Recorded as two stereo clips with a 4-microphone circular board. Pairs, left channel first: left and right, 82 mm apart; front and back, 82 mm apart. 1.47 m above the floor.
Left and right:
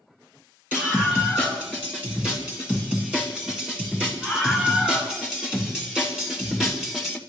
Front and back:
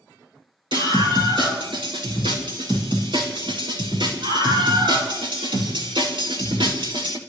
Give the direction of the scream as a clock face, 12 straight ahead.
5 o'clock.